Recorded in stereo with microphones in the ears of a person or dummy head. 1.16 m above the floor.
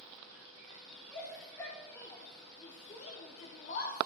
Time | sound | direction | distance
1.1 | a shout | 20° left (ahead or behind) | 4 m